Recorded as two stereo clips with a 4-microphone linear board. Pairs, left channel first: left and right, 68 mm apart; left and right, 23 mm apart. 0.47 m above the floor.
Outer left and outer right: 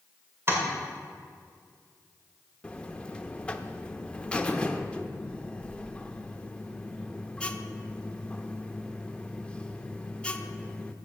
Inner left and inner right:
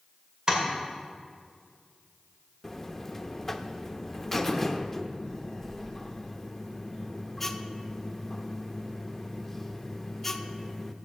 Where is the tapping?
35° right (ahead or behind), 2.5 m.